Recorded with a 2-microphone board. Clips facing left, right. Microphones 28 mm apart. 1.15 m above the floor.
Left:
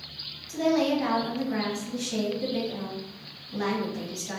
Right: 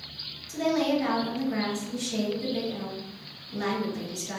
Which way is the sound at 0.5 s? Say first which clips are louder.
Left 1 dB; 30° left (ahead or behind).